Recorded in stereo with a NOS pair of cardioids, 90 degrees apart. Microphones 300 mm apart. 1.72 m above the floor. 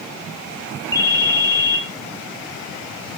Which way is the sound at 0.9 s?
10° left.